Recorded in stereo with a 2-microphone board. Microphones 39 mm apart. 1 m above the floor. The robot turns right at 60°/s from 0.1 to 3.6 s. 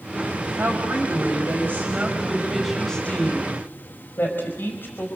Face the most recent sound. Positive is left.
turn(degrees=60)